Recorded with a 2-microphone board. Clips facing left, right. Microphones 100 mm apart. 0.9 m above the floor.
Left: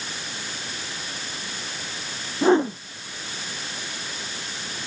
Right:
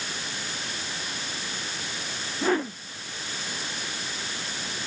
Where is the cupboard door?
I don't hear a cupboard door.